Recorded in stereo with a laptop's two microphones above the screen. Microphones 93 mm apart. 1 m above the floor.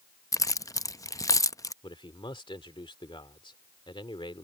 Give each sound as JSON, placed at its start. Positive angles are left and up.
{"t": 0.3, "sound": "keys jangling", "side_deg": 35}
{"t": 1.8, "sound": "a man speaking", "side_deg": 65}